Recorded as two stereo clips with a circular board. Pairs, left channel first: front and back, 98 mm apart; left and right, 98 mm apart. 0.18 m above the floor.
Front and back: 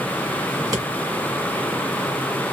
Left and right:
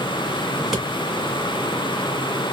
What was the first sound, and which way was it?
Scissors, 175° right.